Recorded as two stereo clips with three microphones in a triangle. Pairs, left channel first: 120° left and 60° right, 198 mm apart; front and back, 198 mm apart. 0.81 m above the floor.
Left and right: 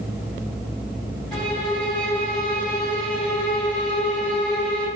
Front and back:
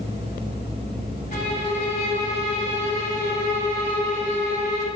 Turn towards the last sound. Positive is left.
turn(degrees=35)